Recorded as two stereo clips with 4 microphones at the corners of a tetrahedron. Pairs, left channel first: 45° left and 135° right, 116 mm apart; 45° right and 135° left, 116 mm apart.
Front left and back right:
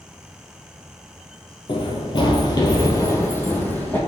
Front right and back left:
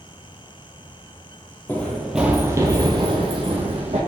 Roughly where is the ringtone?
I don't hear a ringtone.